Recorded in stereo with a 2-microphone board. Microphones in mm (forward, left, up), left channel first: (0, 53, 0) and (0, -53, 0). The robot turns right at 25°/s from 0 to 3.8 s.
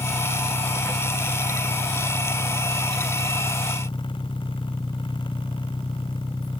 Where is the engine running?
35° right; by 6.6 s 60° left.